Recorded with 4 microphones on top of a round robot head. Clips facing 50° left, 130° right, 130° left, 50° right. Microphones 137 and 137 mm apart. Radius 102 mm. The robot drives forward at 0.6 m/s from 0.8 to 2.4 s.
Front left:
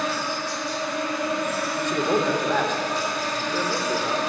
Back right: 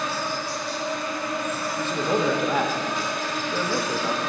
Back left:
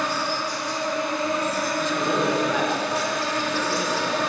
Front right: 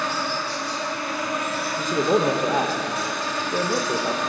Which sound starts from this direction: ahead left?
An insect, at 0.0 s.